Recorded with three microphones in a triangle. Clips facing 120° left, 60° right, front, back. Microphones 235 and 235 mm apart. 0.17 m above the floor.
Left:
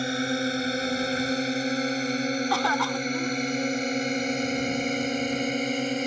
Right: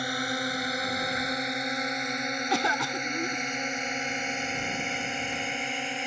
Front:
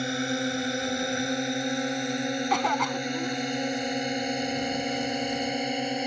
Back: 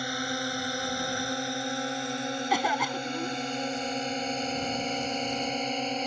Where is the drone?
60° left; by 6.1 s 80° left.